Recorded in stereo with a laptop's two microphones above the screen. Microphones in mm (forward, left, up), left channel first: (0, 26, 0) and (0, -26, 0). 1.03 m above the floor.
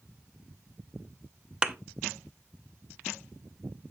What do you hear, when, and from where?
1.6 s a thud: 15° right (ahead or behind), 0.7 m